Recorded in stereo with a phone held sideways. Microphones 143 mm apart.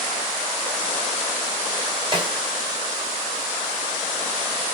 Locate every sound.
2.1 s a snare drum: 35° right (ahead or behind), 2.5 m